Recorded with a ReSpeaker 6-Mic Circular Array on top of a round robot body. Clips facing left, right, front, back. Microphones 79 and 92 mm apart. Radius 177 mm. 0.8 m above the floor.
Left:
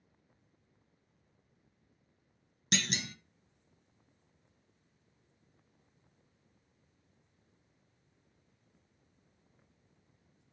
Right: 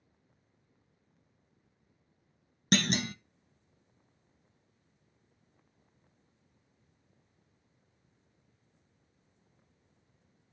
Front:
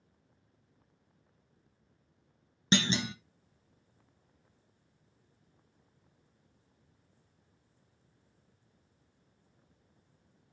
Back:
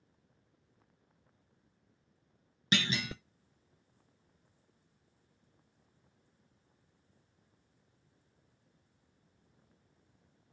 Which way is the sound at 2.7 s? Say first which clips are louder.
Right 7 dB, front 4 dB; 60° right.